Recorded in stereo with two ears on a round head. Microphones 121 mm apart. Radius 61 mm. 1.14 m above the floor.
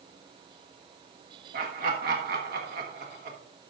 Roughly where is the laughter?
Right.